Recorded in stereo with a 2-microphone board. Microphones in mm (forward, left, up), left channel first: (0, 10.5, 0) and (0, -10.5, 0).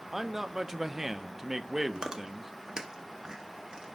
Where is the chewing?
35° right (ahead or behind), 1.0 m.